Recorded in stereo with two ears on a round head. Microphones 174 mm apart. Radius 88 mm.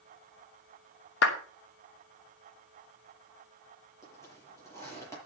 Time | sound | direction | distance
1.2 | a clap | 65° left (ahead or behind) | 2.5 m
4.0 | a zipper | 15° left (ahead or behind) | 8.5 m